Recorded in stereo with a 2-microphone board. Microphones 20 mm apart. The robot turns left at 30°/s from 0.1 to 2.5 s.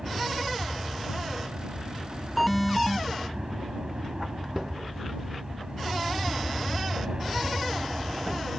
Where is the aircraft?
50° right; by 8.6 s 120° right.